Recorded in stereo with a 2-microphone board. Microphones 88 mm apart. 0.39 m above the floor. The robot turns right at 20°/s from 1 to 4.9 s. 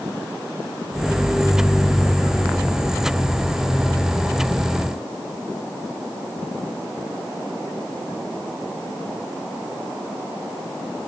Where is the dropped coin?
I don't hear a dropped coin.